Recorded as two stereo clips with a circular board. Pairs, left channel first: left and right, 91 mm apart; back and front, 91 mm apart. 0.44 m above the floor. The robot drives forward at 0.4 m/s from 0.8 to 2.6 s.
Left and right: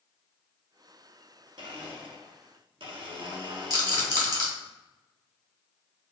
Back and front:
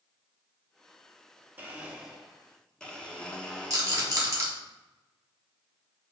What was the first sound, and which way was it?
A blender, 70° right.